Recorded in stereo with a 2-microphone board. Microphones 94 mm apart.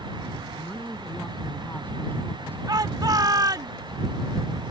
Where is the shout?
45° right (ahead or behind).